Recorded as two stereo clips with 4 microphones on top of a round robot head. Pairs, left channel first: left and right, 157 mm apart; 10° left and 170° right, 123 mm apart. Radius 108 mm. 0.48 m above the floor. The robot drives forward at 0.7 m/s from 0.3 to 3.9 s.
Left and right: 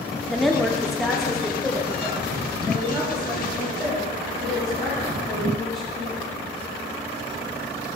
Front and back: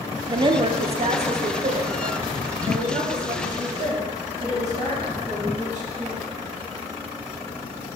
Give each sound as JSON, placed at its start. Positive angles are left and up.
{"t": 0.3, "sound": "a woman speaking", "azimuth_deg": 180, "distance_m": 0.8}